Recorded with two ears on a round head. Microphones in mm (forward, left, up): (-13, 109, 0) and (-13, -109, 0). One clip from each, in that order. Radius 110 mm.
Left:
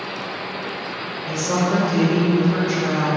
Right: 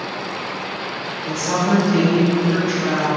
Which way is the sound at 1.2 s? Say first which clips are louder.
Right 2 dB; 20° right (ahead or behind).